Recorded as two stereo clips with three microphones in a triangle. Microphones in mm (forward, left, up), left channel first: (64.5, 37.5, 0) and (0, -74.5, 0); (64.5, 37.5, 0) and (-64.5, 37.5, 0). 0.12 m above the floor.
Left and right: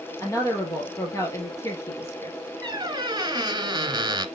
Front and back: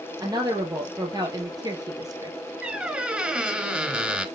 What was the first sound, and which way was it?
A woman speaking, 125° left.